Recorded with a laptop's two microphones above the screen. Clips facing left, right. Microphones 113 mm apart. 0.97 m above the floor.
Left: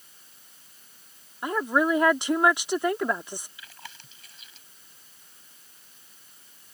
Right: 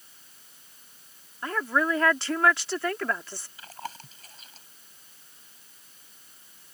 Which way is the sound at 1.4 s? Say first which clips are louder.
Left 3 dB; 15° left (ahead or behind).